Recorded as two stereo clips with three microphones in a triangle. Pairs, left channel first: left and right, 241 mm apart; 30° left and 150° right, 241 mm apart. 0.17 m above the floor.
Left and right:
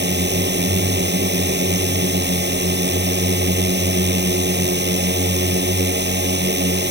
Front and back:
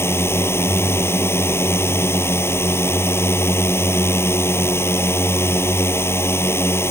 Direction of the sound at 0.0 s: 50° right.